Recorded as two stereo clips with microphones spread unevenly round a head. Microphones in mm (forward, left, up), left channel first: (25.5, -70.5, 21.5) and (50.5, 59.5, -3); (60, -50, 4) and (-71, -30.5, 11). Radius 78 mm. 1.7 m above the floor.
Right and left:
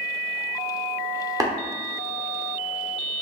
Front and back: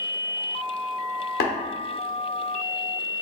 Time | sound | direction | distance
1.4 | tapping | 15° left | 0.9 m